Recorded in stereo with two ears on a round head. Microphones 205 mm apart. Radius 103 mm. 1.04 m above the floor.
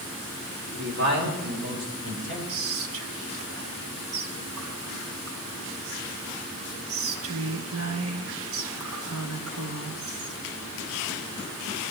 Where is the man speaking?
50° right (ahead or behind), 2.5 m; by 2.4 s 60° right (ahead or behind), 5 m.